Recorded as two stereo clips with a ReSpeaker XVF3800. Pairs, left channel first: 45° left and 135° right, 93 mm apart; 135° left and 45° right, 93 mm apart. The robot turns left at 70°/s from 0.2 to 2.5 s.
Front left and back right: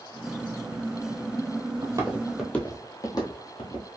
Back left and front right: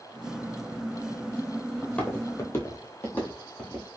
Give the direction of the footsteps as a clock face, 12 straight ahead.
4 o'clock.